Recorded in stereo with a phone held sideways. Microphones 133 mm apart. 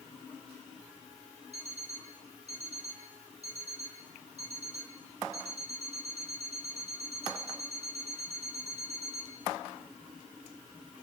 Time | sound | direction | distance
1.5 | an alarm clock | 50° right (ahead or behind) | 6.5 m